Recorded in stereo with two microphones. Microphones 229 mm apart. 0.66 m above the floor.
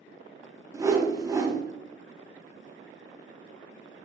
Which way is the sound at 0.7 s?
15° right (ahead or behind).